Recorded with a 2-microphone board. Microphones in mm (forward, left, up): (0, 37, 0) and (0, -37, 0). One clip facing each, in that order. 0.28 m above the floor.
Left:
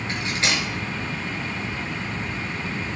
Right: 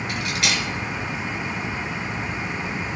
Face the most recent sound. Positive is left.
turn(degrees=35)  # may be behind; listen again after turning